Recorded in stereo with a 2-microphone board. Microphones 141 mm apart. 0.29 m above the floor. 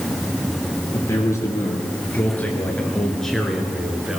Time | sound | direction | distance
0.9 | a man speaking | 25° left (ahead or behind) | 5.5 m